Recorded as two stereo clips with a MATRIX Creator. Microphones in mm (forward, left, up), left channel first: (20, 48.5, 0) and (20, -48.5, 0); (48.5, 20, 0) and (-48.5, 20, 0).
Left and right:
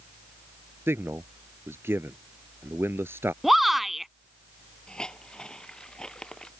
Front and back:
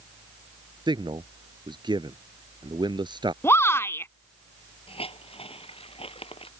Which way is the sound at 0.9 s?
155° right.